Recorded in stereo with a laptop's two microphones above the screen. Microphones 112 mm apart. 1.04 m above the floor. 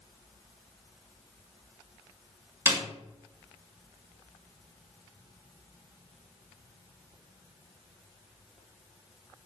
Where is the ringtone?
I don't hear a ringtone.